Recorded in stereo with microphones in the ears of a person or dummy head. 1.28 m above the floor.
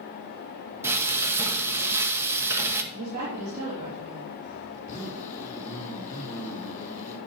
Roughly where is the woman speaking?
Right.